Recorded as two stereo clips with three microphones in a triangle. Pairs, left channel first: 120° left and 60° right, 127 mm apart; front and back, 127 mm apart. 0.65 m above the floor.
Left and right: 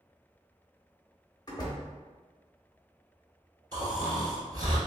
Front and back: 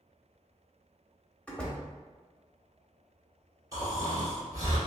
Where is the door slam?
80° left, 0.8 m.